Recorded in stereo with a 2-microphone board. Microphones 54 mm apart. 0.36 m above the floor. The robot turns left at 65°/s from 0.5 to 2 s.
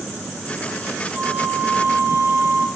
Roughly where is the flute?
Ahead.